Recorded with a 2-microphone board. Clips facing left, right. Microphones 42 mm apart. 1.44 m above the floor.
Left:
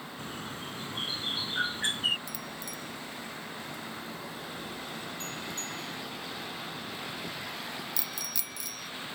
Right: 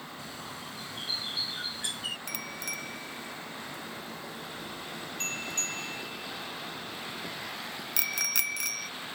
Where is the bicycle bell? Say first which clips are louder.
Right 3 dB; 55° right (ahead or behind).